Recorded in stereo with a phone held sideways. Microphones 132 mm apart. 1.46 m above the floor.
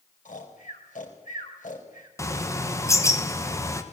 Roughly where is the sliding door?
I don't hear a sliding door.